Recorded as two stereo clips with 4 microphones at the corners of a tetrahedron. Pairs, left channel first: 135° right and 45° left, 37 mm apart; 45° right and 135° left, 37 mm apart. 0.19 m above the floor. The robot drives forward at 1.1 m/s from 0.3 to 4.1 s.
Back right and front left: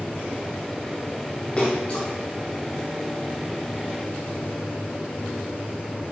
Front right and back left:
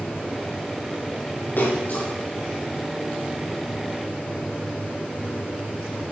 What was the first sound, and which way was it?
A splash, 75° right.